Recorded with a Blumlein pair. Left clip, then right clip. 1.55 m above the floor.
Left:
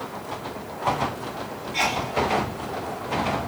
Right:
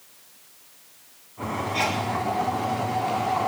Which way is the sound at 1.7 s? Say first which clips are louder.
Left 3 dB; 15° left.